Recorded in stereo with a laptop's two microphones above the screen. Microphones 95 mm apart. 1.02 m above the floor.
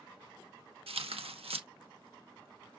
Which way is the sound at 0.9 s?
85° right.